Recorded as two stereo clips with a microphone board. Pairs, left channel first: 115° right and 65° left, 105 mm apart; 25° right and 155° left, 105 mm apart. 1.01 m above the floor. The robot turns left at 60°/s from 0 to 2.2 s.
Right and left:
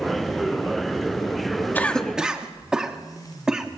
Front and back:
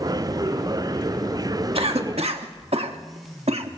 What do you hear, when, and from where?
1.8 s a cough: straight behind, 1.5 m; by 3.7 s 150° left, 1.5 m